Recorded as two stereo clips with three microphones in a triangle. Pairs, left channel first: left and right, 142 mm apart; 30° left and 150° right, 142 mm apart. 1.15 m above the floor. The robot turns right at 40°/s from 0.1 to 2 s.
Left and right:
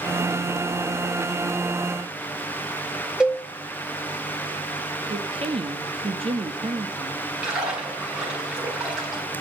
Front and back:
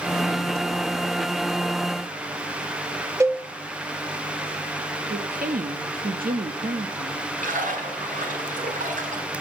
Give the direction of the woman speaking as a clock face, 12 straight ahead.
5 o'clock.